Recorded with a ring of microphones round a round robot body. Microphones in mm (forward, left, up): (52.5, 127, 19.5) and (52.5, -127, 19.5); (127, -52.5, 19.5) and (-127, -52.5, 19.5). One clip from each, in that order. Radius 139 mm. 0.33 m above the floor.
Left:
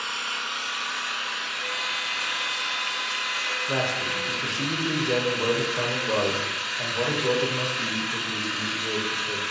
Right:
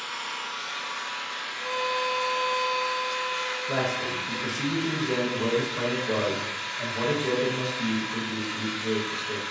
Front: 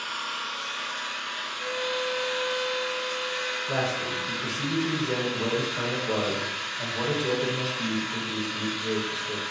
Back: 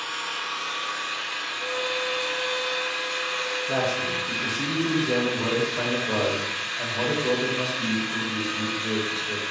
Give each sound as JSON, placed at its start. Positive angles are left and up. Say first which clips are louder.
{"t": 0.0, "sound": "an engine running", "louder": "left 4 dB, back 2 dB", "azimuth_deg": 75, "distance_m": 0.9}
{"t": 1.6, "sound": "a violin", "louder": "right 4 dB, back 1 dB", "azimuth_deg": 70, "distance_m": 0.8}
{"t": 3.7, "sound": "a man speaking", "louder": "left 2 dB, back 3 dB", "azimuth_deg": 90, "distance_m": 0.8}